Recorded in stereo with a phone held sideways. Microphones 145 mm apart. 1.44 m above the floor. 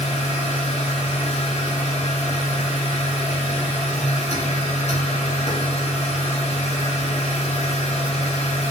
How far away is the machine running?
About 1.5 m.